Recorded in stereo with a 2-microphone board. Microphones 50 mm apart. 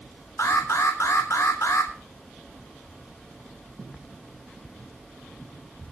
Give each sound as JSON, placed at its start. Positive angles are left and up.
{"t": 0.4, "sound": "an alarm", "side_deg": 75, "distance_m": 3.0}